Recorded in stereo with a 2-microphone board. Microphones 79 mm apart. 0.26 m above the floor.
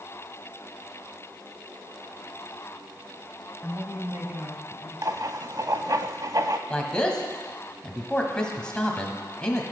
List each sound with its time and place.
3.6 s a woman speaking: 25° right (ahead or behind), 1.6 m; by 4.9 s 20° right (ahead or behind), 1.3 m
5.0 s writing: 50° right (ahead or behind), 0.5 m
6.7 s a man speaking: 10° left (ahead or behind), 1.3 m